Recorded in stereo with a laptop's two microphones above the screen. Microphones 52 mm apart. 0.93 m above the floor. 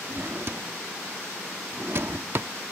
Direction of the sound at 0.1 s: 50° right (ahead or behind).